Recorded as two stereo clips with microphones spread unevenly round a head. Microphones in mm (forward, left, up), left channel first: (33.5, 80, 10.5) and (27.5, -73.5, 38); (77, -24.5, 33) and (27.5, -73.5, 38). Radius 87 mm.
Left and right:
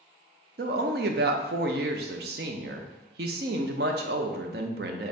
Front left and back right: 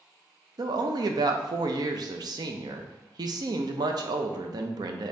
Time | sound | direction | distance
0.6 | a woman speaking | 120° right | 0.6 m